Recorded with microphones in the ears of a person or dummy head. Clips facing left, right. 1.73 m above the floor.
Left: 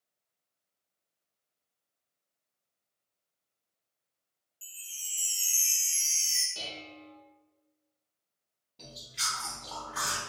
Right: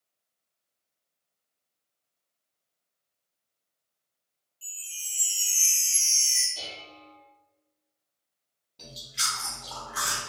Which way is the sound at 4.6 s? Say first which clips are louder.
Right 3 dB; 15° left (ahead or behind).